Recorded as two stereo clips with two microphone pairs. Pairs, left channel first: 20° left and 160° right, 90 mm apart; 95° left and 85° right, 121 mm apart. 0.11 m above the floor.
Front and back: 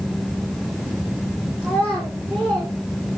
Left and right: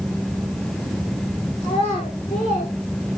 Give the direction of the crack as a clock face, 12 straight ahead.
I don't hear a crack.